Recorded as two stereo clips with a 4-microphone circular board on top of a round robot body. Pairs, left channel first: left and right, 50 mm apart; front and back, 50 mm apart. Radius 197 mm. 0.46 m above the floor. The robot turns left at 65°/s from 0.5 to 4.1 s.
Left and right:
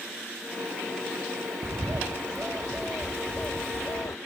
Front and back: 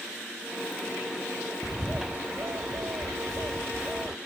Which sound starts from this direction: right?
A bird, at 1.6 s.